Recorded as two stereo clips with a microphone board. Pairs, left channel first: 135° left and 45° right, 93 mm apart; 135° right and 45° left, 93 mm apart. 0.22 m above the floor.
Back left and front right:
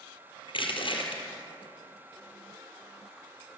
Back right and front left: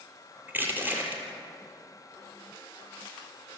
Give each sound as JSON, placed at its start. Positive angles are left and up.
{"t": 0.5, "sound": "crushing", "azimuth_deg": 115, "distance_m": 3.5}